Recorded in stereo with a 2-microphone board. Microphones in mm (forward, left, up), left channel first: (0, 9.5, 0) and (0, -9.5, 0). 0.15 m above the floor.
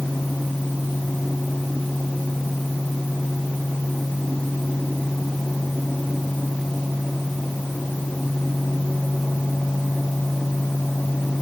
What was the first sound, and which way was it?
Only background noise.